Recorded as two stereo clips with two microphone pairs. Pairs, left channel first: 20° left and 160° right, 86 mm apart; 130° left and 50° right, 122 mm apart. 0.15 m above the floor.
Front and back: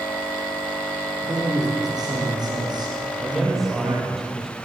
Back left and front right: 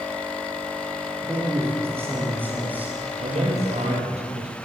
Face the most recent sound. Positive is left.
turn(degrees=-70)